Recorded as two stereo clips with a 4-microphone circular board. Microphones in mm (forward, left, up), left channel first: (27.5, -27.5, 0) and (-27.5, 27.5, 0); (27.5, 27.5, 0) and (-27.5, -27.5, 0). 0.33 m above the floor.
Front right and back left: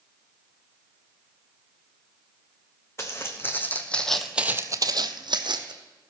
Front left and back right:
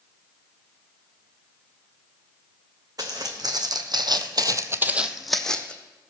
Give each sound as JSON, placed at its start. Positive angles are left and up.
{"t": 3.0, "sound": "footsteps", "azimuth_deg": -100, "distance_m": 1.6}